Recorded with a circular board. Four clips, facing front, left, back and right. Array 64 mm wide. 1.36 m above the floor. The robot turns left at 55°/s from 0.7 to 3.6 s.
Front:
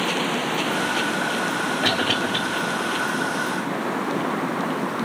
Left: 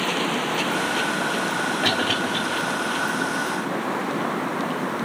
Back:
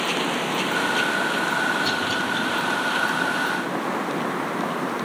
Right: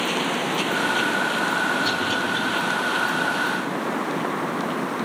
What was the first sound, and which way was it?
A cough, 45° left.